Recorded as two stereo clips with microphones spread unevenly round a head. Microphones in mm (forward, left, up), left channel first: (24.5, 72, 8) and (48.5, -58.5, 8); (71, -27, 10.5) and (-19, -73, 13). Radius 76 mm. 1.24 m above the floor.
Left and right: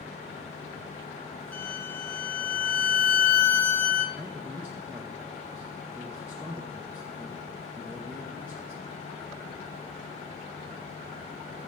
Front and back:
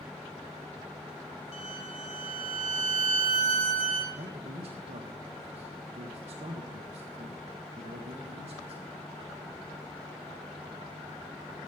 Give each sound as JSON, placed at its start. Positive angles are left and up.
{"t": 1.5, "sound": "a violin", "azimuth_deg": 20, "distance_m": 1.7}
{"t": 4.2, "sound": "a man speaking", "azimuth_deg": -155, "distance_m": 1.4}